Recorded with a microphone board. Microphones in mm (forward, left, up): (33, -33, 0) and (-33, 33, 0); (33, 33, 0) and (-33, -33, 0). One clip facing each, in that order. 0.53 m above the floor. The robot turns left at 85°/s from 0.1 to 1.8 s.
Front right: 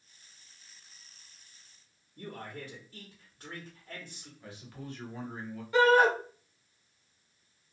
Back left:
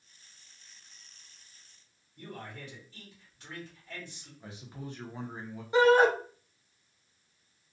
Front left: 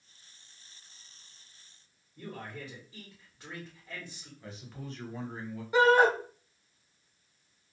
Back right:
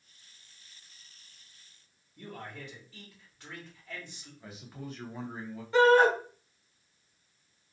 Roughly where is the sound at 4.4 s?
Behind left.